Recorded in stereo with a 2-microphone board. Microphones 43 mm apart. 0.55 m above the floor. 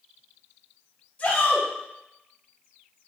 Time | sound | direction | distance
1.2 | a shout | 25° left (ahead or behind) | 1.7 m